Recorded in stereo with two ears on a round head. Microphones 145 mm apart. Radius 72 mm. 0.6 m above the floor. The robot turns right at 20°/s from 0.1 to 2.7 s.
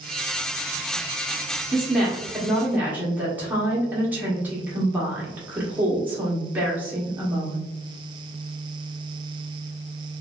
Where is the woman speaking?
Centre (ahead or behind), 1.0 m; by 7.7 s 10° right (ahead or behind), 1.0 m.